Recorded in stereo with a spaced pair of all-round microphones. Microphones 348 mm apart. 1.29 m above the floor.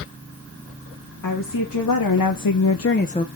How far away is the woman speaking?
About 1.7 m.